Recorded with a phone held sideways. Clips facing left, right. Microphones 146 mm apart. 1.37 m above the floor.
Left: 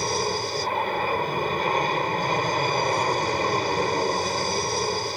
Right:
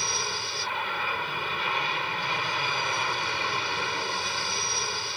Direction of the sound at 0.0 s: 40° left (ahead or behind).